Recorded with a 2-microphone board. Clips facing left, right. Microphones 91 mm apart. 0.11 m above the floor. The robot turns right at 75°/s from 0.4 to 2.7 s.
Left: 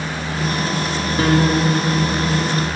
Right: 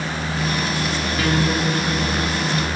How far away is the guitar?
About 7.5 m.